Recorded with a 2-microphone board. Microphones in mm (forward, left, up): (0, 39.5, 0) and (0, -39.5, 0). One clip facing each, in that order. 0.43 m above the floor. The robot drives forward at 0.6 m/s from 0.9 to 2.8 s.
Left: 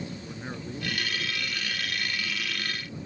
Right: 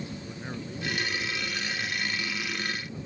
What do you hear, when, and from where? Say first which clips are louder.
0.2 s a man speaking: even; 10° left (ahead or behind)